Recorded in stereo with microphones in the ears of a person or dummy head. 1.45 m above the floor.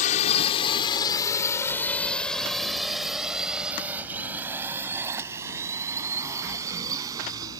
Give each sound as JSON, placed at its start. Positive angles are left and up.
{"t": 0.0, "sound": "a drone", "side_deg": 45}